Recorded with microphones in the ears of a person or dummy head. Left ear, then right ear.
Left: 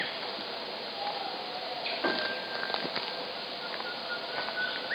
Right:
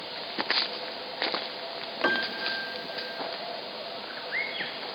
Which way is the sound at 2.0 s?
30° right (ahead or behind).